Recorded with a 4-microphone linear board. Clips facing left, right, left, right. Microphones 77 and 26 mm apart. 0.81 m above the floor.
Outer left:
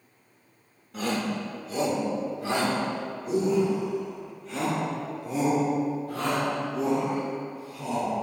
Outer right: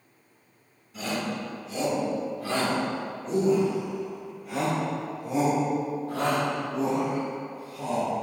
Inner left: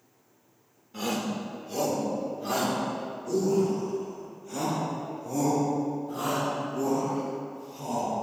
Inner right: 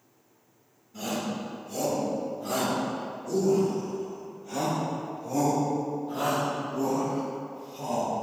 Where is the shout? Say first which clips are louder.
Outer left 2 dB, inner left 1 dB; 60° left (ahead or behind), 3 m; by 8.1 s 35° right (ahead or behind), 7.5 m.